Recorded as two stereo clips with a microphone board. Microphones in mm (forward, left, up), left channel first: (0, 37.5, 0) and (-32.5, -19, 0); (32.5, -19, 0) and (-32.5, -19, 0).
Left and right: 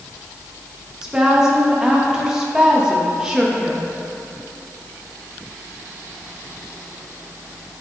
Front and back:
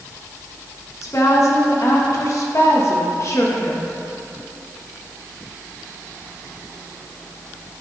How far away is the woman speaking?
About 1.1 m.